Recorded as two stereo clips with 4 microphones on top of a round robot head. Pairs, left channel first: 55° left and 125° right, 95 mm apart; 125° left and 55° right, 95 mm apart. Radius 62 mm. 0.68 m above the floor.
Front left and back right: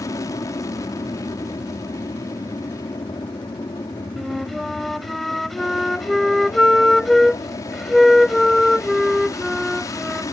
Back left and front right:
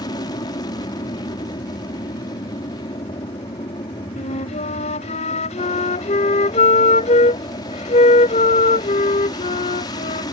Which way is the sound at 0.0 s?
95° left.